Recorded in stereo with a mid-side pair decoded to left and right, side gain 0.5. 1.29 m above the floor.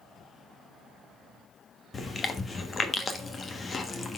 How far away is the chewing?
About 1.2 m.